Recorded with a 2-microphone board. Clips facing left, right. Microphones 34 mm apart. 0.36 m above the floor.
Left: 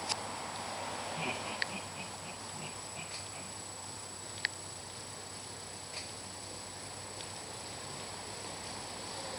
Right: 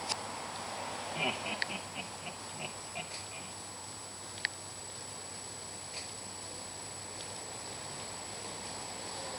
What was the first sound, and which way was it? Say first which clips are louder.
Laughter: right 4 dB; 50° right (ahead or behind).